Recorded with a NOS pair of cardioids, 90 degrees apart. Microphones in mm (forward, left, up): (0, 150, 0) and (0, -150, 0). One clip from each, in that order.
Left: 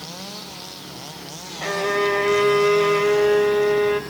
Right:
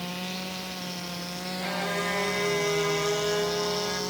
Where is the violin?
50° left, 1.2 m.